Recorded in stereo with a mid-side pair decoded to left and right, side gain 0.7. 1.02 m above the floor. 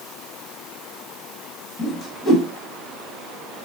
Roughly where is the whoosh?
Ahead left.